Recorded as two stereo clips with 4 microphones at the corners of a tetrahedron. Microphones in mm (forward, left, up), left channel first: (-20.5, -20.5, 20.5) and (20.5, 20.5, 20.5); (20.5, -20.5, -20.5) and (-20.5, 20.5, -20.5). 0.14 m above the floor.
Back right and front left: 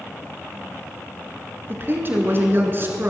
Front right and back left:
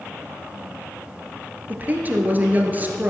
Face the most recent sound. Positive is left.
turn(degrees=85)